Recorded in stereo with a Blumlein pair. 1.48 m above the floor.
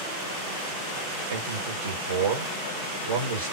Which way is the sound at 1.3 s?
65° right.